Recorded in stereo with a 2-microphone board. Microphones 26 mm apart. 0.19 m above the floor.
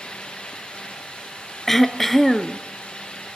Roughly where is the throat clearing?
Centre.